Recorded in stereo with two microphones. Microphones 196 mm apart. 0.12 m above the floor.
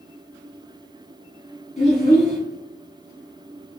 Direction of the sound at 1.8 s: 35° left (ahead or behind).